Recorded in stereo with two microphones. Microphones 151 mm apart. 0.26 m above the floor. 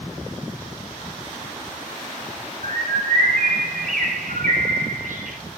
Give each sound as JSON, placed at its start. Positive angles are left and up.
{"t": 2.6, "sound": "a bird", "side_deg": -65, "distance_m": 3.5}